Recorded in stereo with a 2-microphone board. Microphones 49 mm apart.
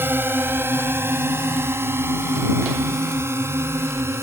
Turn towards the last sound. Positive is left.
turn(degrees=-60)  # may be behind; listen again after turning